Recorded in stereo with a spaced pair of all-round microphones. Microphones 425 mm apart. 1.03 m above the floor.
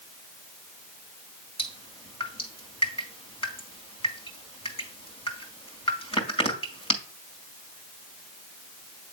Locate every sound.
1.6 s dripping: 15° left (ahead or behind), 2 m